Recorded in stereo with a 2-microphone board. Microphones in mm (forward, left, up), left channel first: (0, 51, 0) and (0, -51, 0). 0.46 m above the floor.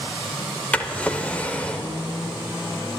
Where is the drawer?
10° left (ahead or behind), 0.8 m.